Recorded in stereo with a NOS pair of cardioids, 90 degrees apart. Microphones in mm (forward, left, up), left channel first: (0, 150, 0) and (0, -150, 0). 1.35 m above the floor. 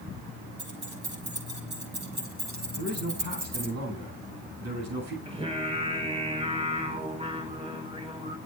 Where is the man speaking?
60° right, 8.5 m.